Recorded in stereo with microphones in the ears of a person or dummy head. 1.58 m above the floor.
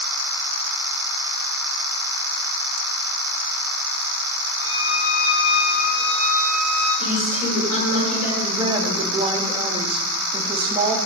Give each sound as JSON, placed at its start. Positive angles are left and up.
{"t": 4.6, "sound": "a violin", "side_deg": 65, "distance_m": 1.9}
{"t": 7.0, "sound": "a woman speaking", "side_deg": 40, "distance_m": 2.5}
{"t": 8.4, "sound": "a woman speaking", "side_deg": -35, "distance_m": 0.7}